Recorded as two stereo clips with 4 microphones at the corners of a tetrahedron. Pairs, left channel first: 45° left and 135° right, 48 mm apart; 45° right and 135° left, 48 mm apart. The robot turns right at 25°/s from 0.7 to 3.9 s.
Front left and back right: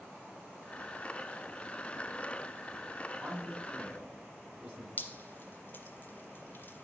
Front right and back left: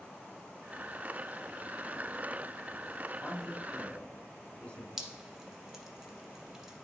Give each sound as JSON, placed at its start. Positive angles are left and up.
{"t": 3.2, "sound": "a man speaking", "azimuth_deg": -115, "distance_m": 1.7}
{"t": 5.0, "sound": "dripping", "azimuth_deg": 50, "distance_m": 1.2}